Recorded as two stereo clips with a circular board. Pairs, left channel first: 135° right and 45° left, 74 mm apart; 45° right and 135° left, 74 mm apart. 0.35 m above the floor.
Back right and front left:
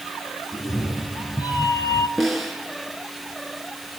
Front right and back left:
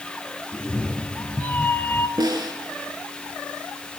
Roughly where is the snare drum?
Behind left.